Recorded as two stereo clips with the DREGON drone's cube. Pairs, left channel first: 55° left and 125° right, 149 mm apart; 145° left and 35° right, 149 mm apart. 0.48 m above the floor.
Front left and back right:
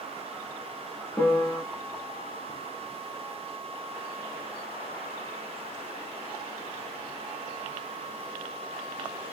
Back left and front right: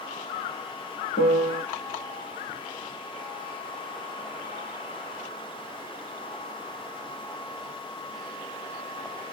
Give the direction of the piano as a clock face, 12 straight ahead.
7 o'clock.